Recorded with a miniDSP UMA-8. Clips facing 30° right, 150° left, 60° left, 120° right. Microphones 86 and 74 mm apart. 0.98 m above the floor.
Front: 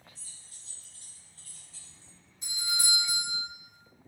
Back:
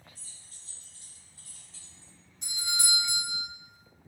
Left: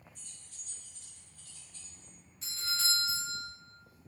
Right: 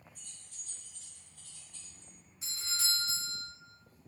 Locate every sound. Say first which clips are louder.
0.1 s keys jangling: even, even; 165° right, 1.1 m; by 2.1 s 105° right, 0.9 m
2.4 s a doorbell: even, left 3 dB; 160° left, 1.7 m